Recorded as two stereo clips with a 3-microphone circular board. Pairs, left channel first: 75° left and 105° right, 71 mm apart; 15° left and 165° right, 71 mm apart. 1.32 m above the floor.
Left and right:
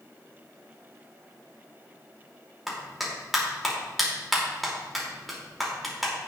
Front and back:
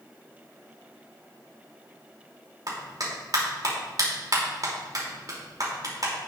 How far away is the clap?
About 3 m.